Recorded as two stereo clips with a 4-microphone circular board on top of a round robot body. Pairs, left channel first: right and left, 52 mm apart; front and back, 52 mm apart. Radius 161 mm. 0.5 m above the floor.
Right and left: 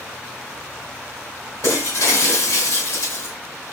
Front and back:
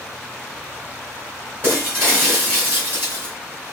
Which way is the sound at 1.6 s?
125° right.